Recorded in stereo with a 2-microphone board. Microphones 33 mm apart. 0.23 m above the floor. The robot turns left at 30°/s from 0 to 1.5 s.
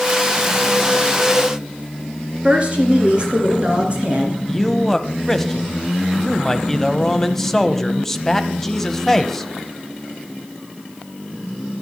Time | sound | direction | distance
2.4 | a woman speaking | 35° right (ahead or behind) | 3 m
4.5 | a man speaking | 10° left (ahead or behind) | 1.0 m